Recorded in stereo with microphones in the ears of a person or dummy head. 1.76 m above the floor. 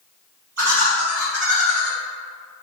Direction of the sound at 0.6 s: 75° right (ahead or behind).